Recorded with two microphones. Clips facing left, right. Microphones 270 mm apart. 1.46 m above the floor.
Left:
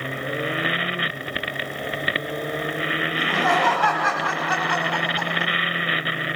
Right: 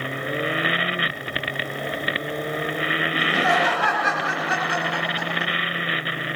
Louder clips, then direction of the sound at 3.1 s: Even; 20° right (ahead or behind).